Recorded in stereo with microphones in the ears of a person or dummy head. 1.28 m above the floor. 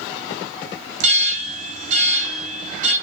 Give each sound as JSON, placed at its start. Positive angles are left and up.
{"t": 1.0, "sound": "an alarm", "side_deg": -40, "distance_m": 7.5}